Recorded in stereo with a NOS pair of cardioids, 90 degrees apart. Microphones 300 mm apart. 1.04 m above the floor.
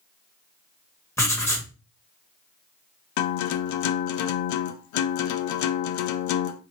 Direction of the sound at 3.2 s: 65° left.